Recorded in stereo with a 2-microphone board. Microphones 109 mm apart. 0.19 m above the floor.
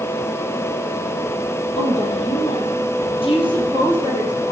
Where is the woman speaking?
70° left (ahead or behind), 5 m; by 4.5 s 30° left (ahead or behind), 6 m.